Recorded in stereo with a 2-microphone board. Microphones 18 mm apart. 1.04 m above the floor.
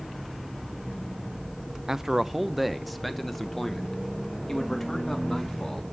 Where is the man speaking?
25° right (ahead or behind), 0.6 m; by 5.8 s 15° left (ahead or behind), 2 m.